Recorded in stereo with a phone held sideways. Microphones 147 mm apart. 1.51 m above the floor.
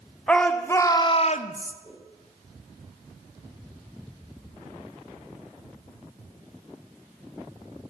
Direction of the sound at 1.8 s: 30° right (ahead or behind).